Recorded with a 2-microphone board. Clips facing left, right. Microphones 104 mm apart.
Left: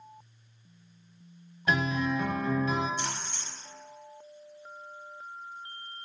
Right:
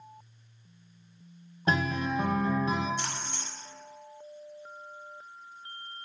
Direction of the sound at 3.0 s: 55° right (ahead or behind).